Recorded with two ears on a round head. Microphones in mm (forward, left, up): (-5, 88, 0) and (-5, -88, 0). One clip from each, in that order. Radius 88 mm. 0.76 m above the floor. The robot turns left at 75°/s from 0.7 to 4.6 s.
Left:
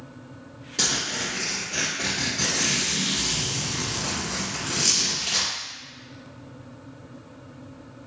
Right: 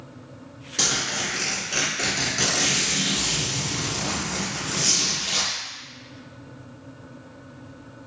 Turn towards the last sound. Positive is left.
turn(degrees=65)